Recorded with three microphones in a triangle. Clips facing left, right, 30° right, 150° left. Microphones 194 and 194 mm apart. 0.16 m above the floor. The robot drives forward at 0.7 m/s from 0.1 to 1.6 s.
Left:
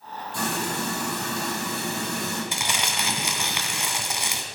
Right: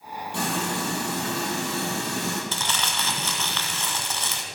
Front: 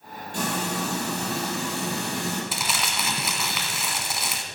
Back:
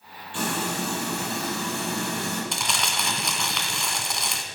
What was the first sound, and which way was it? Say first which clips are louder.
Frying: right 1 dB, even; 75° right.